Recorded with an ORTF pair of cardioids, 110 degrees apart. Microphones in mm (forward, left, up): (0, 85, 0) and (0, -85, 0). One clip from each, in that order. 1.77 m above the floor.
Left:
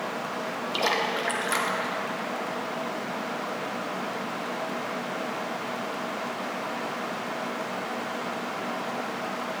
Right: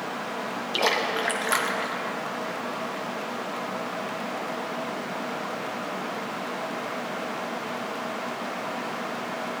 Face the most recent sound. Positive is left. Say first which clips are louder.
# right 2 dB
turn(degrees=-10)